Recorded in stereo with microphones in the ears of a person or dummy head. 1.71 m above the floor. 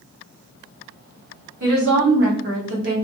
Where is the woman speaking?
65° right (ahead or behind), 1.0 m; by 3.0 s 50° right (ahead or behind), 1.1 m.